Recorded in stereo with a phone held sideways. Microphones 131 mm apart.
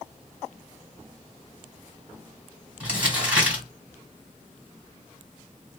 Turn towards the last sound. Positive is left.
turn(degrees=-10)  # may be behind; listen again after turning